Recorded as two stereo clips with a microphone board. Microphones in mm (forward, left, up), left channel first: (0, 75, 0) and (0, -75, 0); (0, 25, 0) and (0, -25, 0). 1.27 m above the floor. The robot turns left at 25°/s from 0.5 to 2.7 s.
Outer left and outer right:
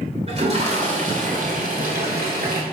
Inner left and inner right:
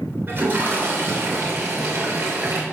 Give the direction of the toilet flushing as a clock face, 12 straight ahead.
1 o'clock.